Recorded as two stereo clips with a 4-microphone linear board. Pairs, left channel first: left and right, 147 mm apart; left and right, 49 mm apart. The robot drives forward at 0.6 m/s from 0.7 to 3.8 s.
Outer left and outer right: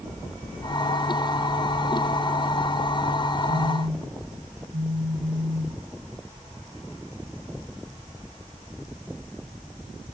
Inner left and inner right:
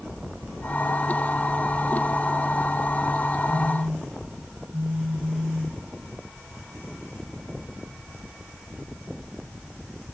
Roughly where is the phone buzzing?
Right.